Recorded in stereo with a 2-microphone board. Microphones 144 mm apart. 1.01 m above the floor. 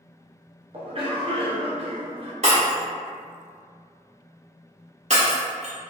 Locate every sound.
0.7 s a cough: 45° right (ahead or behind), 0.8 m
2.4 s breaking glass: 55° right (ahead or behind), 1.4 m